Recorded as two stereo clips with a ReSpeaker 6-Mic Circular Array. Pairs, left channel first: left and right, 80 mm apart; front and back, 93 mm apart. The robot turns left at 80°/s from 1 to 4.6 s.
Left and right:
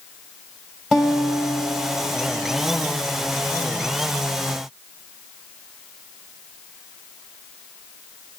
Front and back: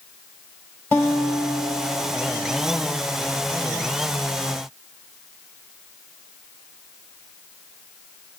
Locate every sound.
0.9 s a guitar: 10° right, 1.3 m; by 3.0 s 165° right, 1.3 m